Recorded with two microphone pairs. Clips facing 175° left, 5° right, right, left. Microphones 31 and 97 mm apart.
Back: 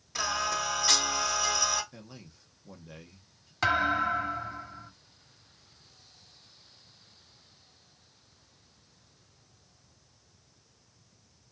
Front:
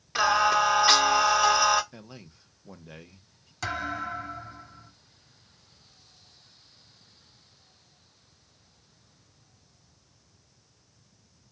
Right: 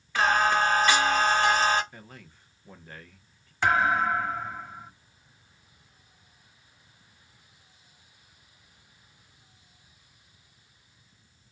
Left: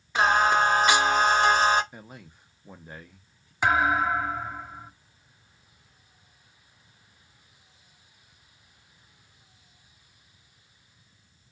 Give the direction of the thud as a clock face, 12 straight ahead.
7 o'clock.